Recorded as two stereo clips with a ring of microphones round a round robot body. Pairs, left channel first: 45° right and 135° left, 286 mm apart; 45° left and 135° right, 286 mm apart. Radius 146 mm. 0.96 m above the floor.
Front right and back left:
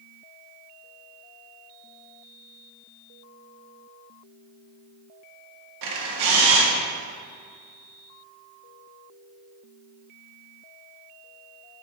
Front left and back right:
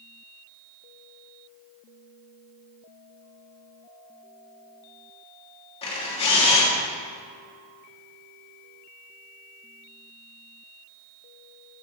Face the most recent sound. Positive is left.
turn(degrees=115)